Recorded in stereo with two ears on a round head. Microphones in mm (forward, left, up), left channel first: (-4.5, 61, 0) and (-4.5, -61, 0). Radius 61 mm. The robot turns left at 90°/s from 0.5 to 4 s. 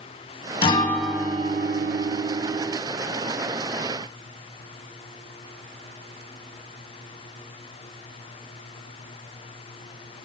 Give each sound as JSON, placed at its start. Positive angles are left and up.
{"t": 0.6, "sound": "a guitar", "azimuth_deg": 40, "distance_m": 1.3}